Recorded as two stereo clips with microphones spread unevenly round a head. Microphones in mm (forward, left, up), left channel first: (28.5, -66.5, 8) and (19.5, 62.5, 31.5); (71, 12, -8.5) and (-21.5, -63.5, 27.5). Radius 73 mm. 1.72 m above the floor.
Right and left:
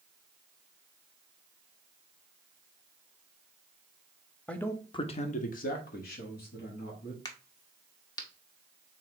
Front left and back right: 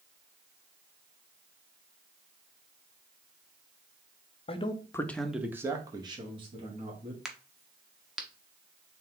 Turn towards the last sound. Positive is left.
turn(degrees=-130)